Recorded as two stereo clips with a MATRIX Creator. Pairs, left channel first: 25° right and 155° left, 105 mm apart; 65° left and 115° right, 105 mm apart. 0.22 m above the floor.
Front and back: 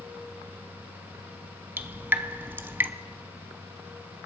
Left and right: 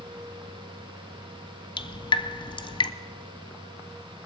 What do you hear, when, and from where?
1.8 s dripping: 90° left, 0.6 m